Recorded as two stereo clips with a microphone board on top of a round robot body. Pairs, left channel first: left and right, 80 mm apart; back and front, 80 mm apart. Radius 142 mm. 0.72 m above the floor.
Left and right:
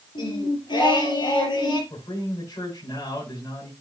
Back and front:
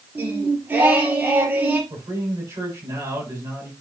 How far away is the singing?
About 3.5 m.